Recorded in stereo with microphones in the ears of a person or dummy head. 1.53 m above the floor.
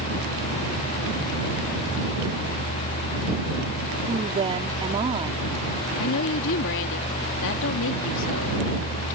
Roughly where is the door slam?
No door slam in this recording.